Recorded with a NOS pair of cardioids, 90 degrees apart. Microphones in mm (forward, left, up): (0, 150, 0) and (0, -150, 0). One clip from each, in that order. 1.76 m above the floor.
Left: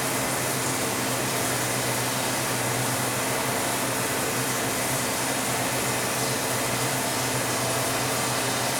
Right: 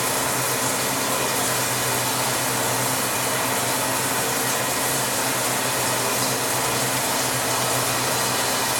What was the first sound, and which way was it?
Running water, 45° right.